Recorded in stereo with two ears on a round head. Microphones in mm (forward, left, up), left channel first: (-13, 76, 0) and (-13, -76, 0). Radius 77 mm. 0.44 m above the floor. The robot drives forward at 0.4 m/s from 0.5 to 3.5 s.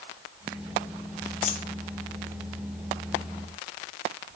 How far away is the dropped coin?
About 0.9 m.